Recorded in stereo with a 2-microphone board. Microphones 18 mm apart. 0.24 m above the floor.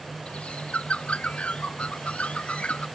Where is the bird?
75° left (ahead or behind).